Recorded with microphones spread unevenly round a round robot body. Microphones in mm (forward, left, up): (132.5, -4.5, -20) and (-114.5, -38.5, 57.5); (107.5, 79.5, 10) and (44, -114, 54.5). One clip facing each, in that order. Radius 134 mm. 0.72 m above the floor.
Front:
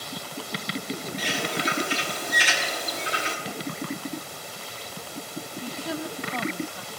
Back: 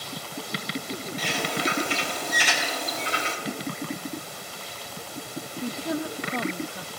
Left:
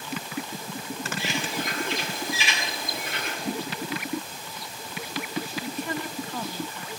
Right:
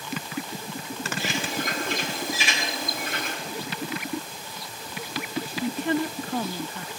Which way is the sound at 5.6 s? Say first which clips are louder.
Back 4 dB, right 6 dB; 90° right.